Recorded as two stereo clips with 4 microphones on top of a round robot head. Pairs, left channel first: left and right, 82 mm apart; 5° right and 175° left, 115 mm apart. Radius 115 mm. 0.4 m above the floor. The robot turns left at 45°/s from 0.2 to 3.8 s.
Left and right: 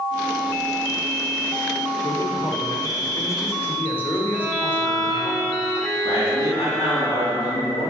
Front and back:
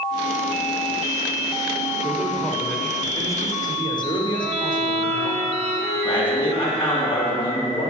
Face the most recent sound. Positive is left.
turn(degrees=45)